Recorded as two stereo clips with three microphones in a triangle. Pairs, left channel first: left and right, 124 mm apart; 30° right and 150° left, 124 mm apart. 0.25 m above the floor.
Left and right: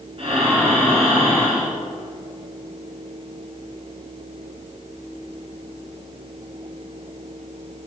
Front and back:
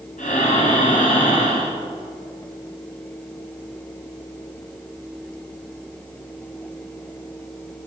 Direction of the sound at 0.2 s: 45° right.